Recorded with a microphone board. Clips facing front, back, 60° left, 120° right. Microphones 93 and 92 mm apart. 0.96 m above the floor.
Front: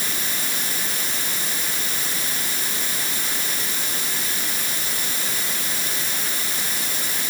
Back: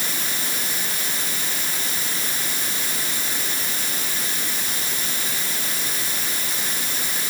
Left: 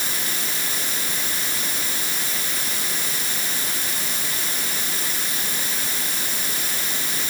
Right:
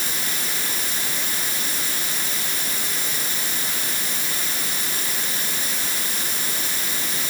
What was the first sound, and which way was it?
Only background noise.